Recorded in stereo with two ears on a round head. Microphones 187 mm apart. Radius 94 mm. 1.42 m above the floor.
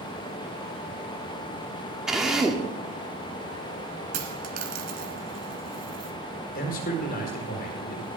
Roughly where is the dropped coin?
Right.